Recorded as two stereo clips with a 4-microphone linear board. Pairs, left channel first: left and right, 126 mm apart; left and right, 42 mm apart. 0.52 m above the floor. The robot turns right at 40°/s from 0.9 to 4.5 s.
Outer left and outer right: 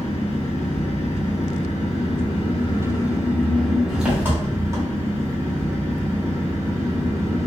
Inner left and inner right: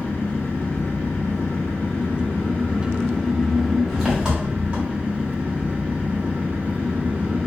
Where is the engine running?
65° left, 1.2 m; by 7.5 s 150° right, 1.2 m.